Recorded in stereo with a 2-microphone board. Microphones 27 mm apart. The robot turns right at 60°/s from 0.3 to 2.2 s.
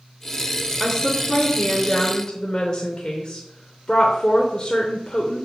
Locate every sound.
0.8 s a woman speaking: 40° left, 0.9 m; by 5.5 s 120° left, 0.9 m